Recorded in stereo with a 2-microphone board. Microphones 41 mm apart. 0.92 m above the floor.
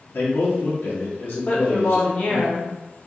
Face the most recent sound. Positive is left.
turn(degrees=45)  # may be behind; listen again after turning